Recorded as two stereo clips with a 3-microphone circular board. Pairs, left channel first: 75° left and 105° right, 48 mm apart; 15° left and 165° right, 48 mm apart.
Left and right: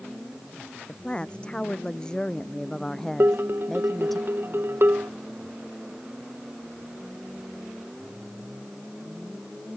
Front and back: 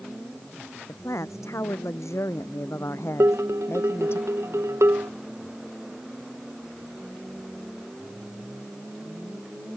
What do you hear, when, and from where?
0.9 s a woman speaking: 10° left; by 4.2 s 15° right
3.2 s dishes clattering: 140° right